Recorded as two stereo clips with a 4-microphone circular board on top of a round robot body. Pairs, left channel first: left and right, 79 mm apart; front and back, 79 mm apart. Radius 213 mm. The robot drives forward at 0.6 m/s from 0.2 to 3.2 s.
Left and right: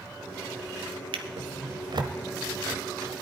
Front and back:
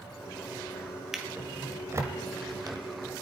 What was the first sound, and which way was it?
A drawer, 95° right.